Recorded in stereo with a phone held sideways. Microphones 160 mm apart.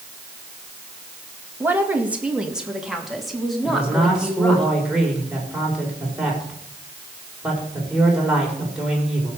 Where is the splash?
I don't hear a splash.